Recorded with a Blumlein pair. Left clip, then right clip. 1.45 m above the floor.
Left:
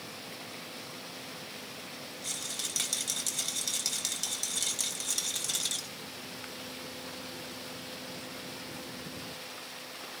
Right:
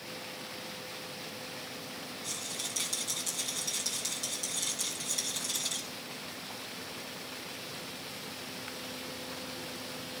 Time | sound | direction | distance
2.2 | a rattle | 70° left | 3 m